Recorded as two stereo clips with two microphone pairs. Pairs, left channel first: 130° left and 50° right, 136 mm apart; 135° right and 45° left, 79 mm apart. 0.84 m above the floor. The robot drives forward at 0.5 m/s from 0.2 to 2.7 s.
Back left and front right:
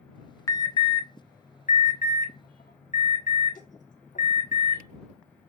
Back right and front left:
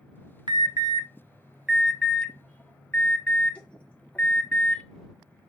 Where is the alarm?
65° left, 0.6 m; by 4.8 s 150° left, 1.0 m.